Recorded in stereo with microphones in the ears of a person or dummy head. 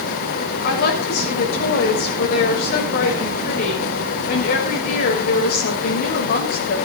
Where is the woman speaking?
45° left (ahead or behind), 7 m.